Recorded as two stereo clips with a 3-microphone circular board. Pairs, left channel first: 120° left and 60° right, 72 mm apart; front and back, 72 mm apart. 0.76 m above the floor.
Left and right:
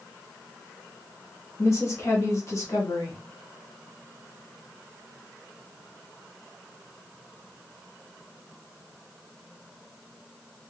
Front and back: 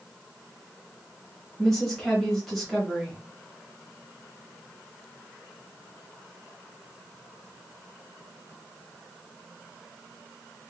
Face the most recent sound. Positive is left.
turn(degrees=85)